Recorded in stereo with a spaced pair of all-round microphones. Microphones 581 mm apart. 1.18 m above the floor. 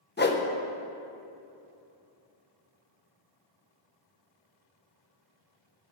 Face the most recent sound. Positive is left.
turn(degrees=20)  # may be behind; listen again after turning